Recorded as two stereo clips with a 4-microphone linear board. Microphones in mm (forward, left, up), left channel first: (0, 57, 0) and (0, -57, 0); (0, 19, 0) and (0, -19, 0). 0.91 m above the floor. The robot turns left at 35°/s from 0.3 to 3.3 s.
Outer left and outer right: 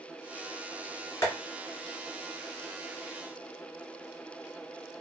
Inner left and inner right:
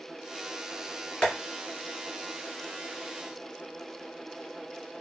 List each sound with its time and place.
1.2 s tapping: 25° left (ahead or behind), 1.8 m; by 1.3 s 20° left (ahead or behind), 1.8 m